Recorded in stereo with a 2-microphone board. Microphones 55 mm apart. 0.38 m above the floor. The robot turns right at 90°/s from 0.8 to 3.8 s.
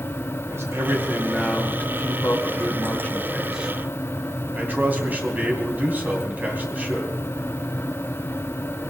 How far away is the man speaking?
About 3 m.